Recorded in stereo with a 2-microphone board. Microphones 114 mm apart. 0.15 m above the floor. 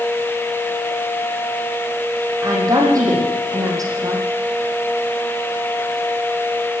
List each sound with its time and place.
2.4 s a woman speaking: 30° right (ahead or behind), 6 m